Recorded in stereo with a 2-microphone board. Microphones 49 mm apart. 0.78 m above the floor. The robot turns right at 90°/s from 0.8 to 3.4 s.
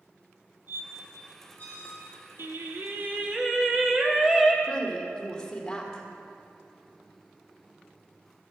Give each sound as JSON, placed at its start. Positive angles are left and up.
{"t": 0.7, "sound": "a squeak", "side_deg": -40, "distance_m": 4.0}
{"t": 2.4, "sound": "singing", "azimuth_deg": -105, "distance_m": 1.3}
{"t": 4.6, "sound": "a woman speaking", "side_deg": 15, "distance_m": 1.9}